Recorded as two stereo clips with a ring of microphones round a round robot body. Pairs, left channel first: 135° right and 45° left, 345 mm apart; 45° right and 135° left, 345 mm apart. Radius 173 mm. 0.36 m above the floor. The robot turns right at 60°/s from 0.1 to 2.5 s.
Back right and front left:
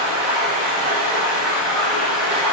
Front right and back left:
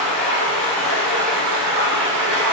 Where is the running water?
Straight ahead, 1.4 m; by 2.5 s 140° left, 1.4 m.